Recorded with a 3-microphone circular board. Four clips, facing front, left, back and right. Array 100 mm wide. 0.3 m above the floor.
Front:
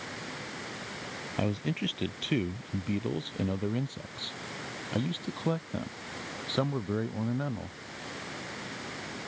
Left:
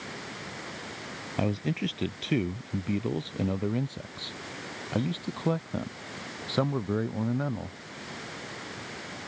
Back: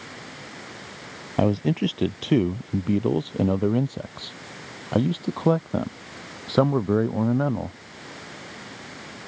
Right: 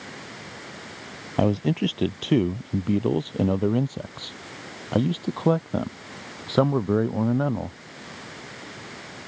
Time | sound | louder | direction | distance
1.4 | a man speaking | right 7 dB, back 10 dB | 140° right | ?